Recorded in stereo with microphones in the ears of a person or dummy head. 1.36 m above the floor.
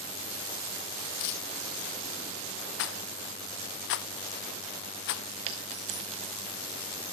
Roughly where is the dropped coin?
Right.